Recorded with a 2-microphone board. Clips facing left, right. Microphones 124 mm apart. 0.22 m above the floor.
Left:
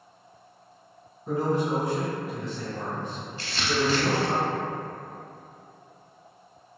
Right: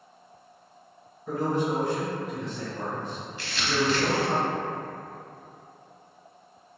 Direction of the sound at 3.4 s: 35° left (ahead or behind).